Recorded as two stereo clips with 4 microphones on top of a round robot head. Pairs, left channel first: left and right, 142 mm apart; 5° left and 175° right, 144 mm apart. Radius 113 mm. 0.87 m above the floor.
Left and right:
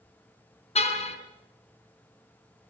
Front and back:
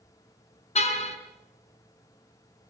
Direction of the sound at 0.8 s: 50° left.